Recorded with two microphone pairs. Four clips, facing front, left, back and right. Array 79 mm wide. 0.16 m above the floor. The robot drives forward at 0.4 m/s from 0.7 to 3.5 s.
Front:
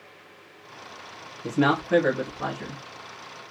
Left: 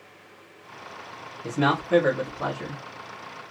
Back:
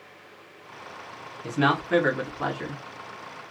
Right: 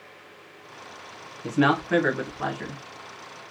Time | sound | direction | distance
1.4 | a man speaking | 115° right | 1.4 m